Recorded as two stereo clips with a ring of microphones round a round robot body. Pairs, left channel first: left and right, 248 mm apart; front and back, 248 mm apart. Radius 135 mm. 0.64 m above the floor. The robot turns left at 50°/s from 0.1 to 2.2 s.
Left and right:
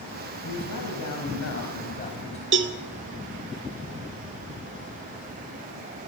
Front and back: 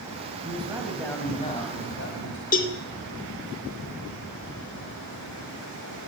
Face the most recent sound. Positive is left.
turn(degrees=-55)